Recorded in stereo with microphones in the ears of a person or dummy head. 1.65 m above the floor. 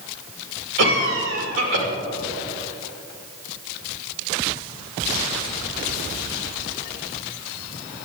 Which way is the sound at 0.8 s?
70° right (ahead or behind).